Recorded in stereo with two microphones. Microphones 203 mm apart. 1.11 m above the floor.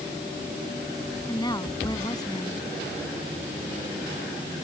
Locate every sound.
1.3 s a woman speaking: 20° left (ahead or behind)